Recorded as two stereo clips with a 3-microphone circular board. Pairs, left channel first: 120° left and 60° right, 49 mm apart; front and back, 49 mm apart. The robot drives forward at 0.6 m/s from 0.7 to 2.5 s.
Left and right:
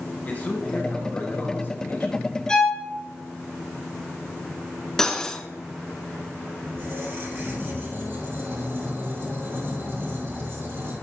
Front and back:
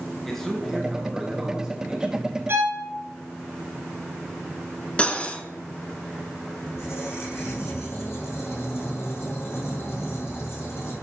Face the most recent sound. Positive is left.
turn(degrees=-25)